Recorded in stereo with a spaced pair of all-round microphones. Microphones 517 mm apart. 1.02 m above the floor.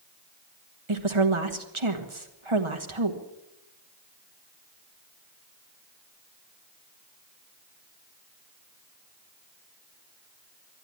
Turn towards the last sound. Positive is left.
turn(degrees=-65)  # may be behind; listen again after turning